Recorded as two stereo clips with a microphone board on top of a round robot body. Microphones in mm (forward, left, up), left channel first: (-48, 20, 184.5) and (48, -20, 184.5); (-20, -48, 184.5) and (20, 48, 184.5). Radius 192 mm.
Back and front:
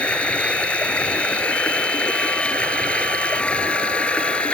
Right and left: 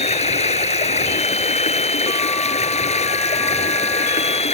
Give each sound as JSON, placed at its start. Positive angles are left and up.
{"t": 0.0, "sound": "running water", "azimuth_deg": -125}